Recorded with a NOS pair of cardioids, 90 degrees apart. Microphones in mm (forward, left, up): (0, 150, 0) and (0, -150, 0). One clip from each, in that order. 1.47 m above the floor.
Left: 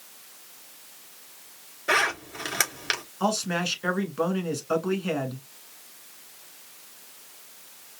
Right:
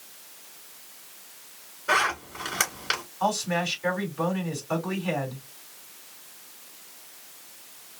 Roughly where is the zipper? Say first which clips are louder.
Even; ahead left.